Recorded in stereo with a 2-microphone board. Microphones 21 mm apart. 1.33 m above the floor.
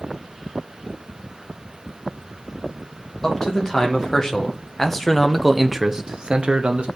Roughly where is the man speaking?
Left.